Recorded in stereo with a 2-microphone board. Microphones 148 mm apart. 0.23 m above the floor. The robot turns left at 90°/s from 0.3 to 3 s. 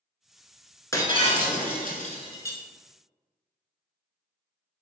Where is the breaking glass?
160° left, 0.7 m; by 2.6 s 10° left, 0.7 m.